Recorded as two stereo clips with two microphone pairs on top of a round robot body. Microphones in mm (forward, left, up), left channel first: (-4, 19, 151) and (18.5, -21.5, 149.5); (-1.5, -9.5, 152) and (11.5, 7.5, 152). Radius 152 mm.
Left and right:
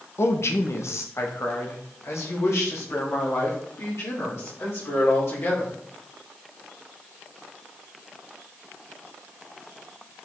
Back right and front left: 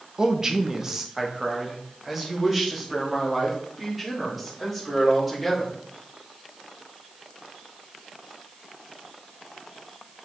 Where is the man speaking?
115° left, 1.3 m; by 5.8 s 135° left, 5 m.